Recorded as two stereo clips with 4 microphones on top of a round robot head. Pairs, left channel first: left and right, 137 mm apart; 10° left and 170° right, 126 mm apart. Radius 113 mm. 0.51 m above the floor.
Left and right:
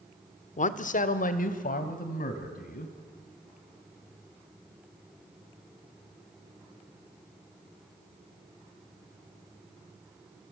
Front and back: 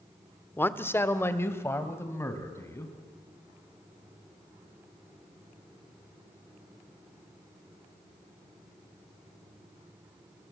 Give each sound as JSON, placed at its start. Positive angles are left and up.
{"t": 0.6, "sound": "a man speaking", "azimuth_deg": 80, "distance_m": 1.3}